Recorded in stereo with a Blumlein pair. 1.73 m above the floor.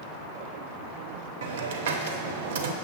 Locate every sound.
1.4 s a hiss: 55° right, 0.6 m